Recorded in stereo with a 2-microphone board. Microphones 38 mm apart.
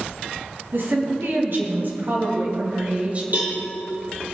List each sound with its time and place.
0.7 s a woman speaking: 70° right (ahead or behind), 3.5 m; by 3.2 s 35° right (ahead or behind), 2 m
3.3 s a cowbell: 45° right (ahead or behind), 3.5 m